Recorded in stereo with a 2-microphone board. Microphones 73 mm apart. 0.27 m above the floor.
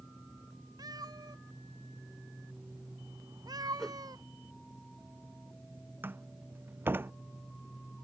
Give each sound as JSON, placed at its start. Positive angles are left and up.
{"t": 0.8, "sound": "a cat meowing", "side_deg": -70}
{"t": 3.8, "sound": "a whoosh", "side_deg": 5}
{"t": 6.0, "sound": "a door slam", "side_deg": -30}